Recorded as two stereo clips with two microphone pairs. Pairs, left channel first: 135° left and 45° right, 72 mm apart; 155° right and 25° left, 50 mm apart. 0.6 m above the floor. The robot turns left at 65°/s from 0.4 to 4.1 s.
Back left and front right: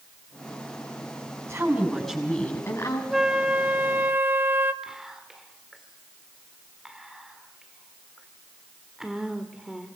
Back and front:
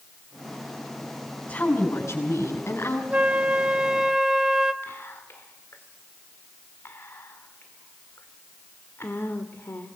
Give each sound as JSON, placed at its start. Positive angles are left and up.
{"t": 1.5, "sound": "a woman speaking", "azimuth_deg": -95, "distance_m": 5.5}
{"t": 3.1, "sound": "a flute", "azimuth_deg": 35, "distance_m": 1.1}
{"t": 4.8, "sound": "whispering", "azimuth_deg": -130, "distance_m": 1.7}